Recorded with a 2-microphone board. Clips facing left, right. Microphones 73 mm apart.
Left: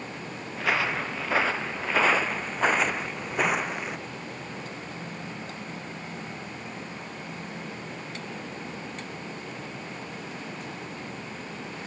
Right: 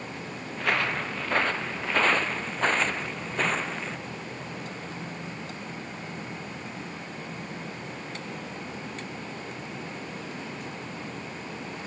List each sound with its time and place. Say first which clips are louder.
0.6 s footsteps: left 1 dB; 5° left (ahead or behind); by 4.0 s 15° left (ahead or behind)